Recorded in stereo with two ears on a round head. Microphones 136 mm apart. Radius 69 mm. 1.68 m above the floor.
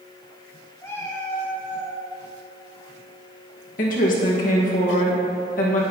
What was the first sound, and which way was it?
A cat meowing, 20° left (ahead or behind).